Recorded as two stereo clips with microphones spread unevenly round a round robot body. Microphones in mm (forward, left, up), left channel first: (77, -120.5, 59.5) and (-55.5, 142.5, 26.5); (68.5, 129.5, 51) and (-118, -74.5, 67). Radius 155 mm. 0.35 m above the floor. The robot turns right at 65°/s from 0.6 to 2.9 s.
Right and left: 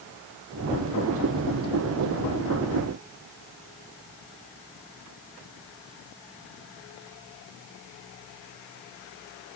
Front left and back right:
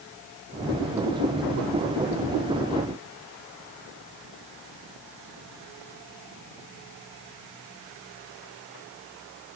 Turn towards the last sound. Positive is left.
No sound to turn to.